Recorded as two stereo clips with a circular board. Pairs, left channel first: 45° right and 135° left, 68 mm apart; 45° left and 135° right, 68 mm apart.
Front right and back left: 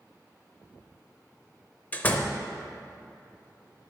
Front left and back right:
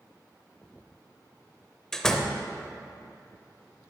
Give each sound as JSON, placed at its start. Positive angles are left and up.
{"t": 1.9, "sound": "a door slam", "azimuth_deg": -25, "distance_m": 0.6}